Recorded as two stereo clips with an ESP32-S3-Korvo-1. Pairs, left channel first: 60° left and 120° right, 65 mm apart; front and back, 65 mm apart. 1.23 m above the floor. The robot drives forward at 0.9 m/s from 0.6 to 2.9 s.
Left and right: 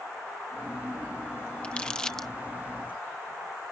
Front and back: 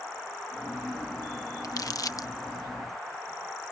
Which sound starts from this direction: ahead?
Crumpling, at 1.6 s.